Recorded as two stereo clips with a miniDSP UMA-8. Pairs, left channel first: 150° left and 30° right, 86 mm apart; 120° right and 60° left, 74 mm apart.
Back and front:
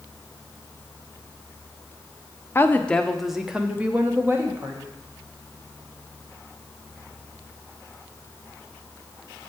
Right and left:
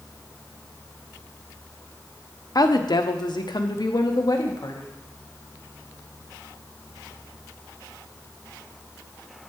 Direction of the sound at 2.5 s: 150° right.